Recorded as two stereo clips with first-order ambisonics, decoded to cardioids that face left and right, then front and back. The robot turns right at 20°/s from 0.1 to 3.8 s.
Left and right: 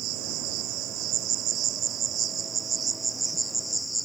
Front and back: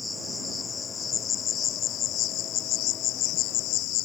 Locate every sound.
0.0 s an insect: 80° right; by 4.1 s 5° right